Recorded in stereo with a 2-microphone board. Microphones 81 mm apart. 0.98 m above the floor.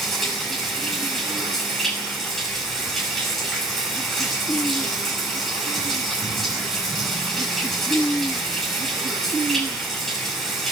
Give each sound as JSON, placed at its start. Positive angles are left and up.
{"t": 0.0, "sound": "running water", "side_deg": 5, "distance_m": 7.0}